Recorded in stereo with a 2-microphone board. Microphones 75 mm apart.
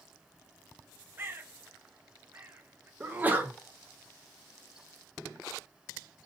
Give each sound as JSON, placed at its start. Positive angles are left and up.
{"t": 1.2, "sound": "a bird", "side_deg": -30, "distance_m": 0.5}
{"t": 3.0, "sound": "a sneeze", "side_deg": -20, "distance_m": 0.7}